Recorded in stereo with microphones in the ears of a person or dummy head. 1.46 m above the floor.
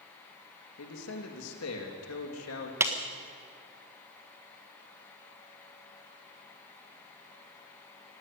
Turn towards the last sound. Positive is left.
turn(degrees=-10)  # may be behind; listen again after turning